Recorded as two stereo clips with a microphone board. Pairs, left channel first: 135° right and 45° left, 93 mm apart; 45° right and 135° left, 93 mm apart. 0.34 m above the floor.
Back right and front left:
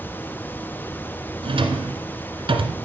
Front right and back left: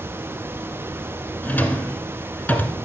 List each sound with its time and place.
1.4 s a drawer: 30° left, 1.3 m